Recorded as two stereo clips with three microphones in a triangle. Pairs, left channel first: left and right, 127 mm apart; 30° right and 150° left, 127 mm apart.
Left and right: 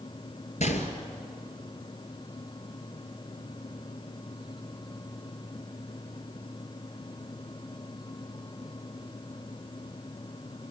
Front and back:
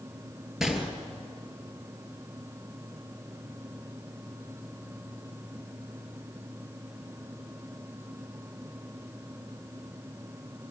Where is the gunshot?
65° left, 2.5 m.